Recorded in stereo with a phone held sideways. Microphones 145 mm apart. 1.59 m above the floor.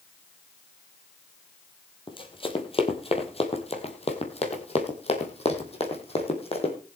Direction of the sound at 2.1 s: 35° left (ahead or behind).